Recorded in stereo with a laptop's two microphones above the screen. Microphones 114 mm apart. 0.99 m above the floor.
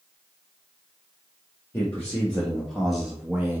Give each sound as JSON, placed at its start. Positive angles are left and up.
{"t": 1.7, "sound": "a man speaking", "side_deg": 15, "distance_m": 1.5}